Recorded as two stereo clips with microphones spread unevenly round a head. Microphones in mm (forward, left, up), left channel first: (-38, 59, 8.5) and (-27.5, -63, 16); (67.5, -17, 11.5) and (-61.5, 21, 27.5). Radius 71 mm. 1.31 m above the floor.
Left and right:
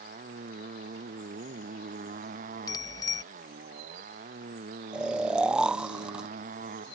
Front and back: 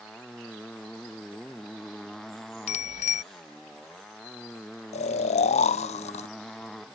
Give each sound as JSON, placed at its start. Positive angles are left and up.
{"t": 0.0, "sound": "a motorcycle", "azimuth_deg": -105}
{"t": 2.7, "sound": "a bicycle bell", "azimuth_deg": 25}
{"t": 4.9, "sound": "snoring", "azimuth_deg": 0}